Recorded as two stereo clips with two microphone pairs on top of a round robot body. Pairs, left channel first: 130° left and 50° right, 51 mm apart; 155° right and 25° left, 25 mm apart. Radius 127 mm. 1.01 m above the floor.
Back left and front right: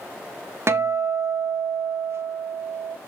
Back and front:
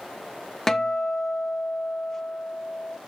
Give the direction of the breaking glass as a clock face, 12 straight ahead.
I don't hear breaking glass.